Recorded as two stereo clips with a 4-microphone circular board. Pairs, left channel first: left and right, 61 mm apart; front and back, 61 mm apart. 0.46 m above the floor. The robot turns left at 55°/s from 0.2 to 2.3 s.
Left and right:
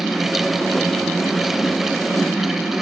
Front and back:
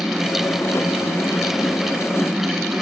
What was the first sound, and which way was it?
Only background noise.